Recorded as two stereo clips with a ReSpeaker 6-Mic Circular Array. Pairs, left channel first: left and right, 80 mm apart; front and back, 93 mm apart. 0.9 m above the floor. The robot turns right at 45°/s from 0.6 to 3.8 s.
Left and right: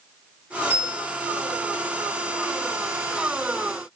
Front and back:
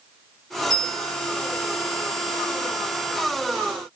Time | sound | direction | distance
0.7 | a bell | 40° right | 1.7 m